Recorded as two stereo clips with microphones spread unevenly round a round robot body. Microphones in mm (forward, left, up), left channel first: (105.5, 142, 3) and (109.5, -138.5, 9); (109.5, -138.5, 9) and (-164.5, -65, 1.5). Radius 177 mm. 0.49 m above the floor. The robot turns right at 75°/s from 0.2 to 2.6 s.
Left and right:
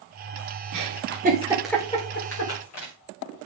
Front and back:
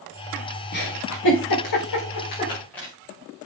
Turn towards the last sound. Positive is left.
turn(degrees=70)